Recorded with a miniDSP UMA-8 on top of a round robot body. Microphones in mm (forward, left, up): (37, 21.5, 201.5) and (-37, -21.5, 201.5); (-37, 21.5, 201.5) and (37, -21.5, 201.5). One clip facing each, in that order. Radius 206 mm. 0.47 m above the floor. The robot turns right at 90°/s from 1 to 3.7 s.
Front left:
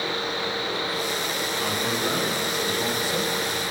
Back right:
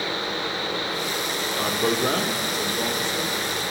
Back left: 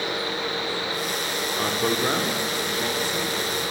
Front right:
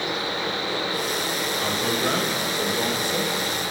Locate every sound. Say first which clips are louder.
1.6 s a man speaking: back right 5 dB, back left 2 dB; 175° left, 1.6 m; by 3.4 s 25° right, 1.6 m